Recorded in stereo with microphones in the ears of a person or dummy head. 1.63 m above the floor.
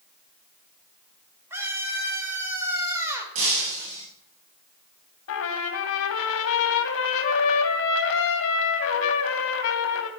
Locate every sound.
1.5 s a scream: 10° right (ahead or behind), 5.5 m
3.4 s breaking glass: 35° right (ahead or behind), 6 m
5.3 s a trumpet: 70° left (ahead or behind), 2.5 m